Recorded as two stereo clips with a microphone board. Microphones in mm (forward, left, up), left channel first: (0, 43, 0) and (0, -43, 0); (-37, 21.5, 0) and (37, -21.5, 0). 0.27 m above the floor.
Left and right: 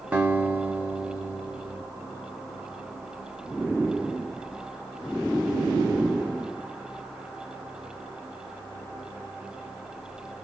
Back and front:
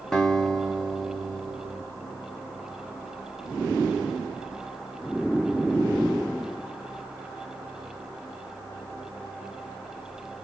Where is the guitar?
135° right, 0.9 m.